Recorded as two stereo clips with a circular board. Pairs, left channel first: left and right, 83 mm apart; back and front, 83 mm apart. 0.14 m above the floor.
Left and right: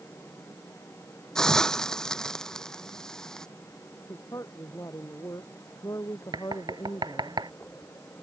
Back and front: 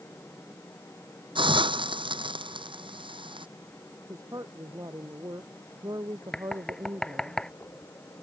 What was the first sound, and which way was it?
A hiss, 10° left.